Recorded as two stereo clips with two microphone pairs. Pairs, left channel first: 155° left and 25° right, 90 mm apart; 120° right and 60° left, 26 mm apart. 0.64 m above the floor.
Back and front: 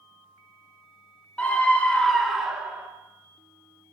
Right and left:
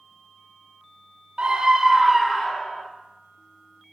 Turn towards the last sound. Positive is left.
turn(degrees=-90)